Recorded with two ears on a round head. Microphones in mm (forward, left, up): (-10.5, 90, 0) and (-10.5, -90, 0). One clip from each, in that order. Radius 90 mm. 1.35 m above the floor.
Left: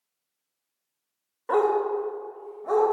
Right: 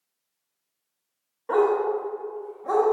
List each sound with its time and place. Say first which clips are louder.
1.5 s a dog barking: right 1 dB; 30° left (ahead or behind), 0.8 m; by 2.9 s 5° left (ahead or behind), 1.7 m